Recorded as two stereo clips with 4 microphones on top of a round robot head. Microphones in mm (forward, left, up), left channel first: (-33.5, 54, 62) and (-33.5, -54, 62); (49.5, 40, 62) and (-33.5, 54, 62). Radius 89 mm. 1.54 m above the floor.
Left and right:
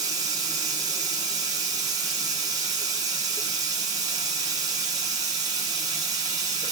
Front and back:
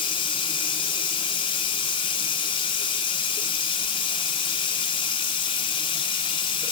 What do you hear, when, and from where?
0.0 s running water: 30° right, 0.7 m